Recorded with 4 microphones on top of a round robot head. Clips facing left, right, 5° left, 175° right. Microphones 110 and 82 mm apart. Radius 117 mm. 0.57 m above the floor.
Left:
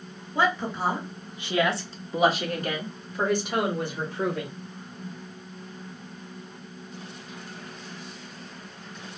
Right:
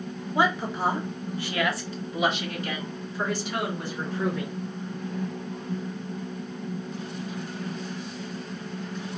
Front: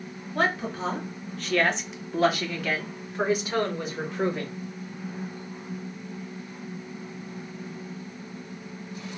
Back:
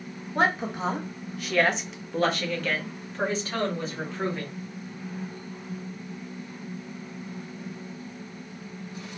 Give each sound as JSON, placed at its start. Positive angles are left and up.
{"t": 0.3, "sound": "a woman speaking", "azimuth_deg": -145, "distance_m": 1.2}